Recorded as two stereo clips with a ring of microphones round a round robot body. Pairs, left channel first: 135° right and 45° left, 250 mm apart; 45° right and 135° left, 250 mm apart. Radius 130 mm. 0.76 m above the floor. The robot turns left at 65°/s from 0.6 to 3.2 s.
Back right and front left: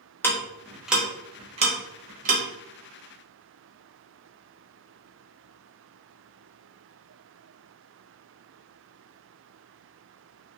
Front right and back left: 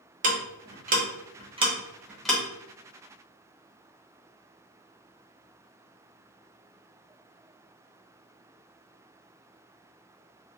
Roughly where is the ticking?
Behind left.